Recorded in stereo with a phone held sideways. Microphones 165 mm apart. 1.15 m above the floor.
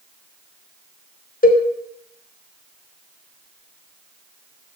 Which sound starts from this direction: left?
A cowbell, at 1.4 s.